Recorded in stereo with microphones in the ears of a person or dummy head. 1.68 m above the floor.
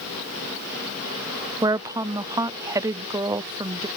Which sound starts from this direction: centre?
A woman speaking, at 1.6 s.